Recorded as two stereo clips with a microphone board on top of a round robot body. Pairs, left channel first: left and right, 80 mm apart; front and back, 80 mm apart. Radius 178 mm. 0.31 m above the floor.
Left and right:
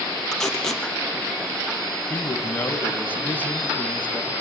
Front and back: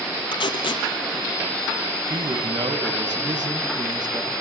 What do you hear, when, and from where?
0.3 s tape being pulled: 5° left, 3 m
2.1 s a man speaking: 155° left, 3.5 m